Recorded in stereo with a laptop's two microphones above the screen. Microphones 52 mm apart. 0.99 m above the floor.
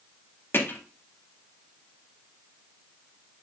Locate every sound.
0.5 s hammering: 45° left (ahead or behind), 0.7 m